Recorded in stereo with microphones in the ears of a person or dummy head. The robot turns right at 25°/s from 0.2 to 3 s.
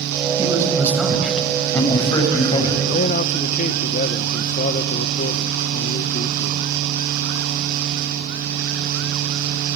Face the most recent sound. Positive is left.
turn(degrees=35)  # may be behind; listen again after turning